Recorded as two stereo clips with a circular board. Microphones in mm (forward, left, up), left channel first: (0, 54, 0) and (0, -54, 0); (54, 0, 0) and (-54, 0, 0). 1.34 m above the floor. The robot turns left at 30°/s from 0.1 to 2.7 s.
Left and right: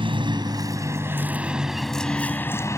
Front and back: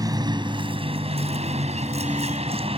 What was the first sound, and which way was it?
A vehicle, 130° right.